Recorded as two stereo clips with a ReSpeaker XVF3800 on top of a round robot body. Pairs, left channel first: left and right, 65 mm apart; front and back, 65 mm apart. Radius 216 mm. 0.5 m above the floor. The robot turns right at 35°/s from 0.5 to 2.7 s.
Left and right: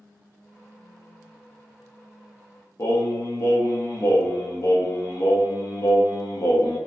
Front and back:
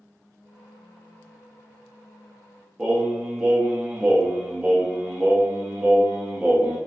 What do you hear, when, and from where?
2.8 s singing: 115° left, 0.8 m